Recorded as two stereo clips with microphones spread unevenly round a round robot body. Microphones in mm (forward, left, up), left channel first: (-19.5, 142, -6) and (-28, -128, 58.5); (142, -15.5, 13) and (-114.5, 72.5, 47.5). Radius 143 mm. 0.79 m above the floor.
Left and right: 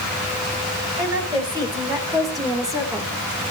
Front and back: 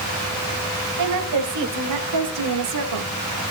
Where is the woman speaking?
170° right, 5 m; by 3.1 s 175° right, 3 m.